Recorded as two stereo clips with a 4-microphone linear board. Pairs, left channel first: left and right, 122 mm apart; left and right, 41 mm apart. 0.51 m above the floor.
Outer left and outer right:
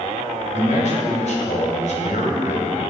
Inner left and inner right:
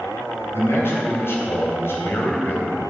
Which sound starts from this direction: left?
A man speaking, at 0.5 s.